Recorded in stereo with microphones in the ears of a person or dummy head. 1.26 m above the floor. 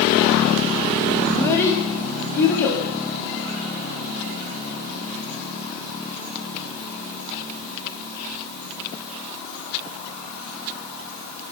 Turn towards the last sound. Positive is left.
turn(degrees=30)  # may be behind; listen again after turning